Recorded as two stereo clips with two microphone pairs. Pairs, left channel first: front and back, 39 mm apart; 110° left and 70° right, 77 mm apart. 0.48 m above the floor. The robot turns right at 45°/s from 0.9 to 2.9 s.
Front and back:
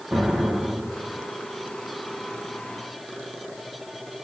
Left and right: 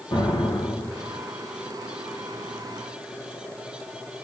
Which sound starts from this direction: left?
An explosion, at 0.1 s.